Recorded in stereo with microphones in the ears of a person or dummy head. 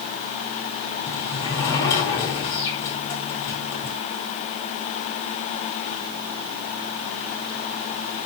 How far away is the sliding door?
About 3 m.